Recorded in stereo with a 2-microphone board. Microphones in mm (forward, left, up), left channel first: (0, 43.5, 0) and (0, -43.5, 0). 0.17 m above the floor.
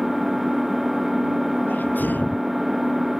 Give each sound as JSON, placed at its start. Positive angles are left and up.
{"t": 0.0, "sound": "an engine running", "side_deg": -5}
{"t": 1.7, "sound": "a sneeze", "side_deg": 25}